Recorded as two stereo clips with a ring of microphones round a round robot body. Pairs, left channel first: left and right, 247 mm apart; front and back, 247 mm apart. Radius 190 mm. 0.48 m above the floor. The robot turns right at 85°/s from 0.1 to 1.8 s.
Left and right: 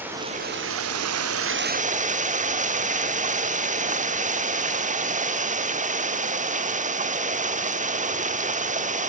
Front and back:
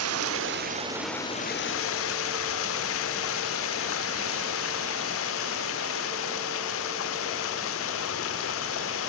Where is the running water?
175° right, 0.8 m; by 9.1 s 30° right, 0.8 m.